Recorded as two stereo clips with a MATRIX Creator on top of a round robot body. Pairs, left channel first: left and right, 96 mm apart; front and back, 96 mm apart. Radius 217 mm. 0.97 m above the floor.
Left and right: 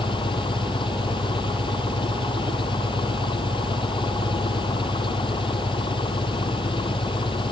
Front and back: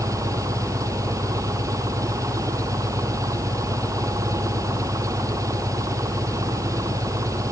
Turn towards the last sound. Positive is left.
turn(degrees=125)